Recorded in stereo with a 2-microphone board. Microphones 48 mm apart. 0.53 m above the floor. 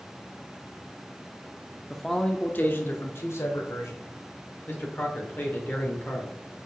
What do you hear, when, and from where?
1.9 s a man speaking: 5° right (ahead or behind), 0.6 m; by 4.0 s 65° left (ahead or behind), 1.6 m
4.7 s a man speaking: 35° left (ahead or behind), 1.9 m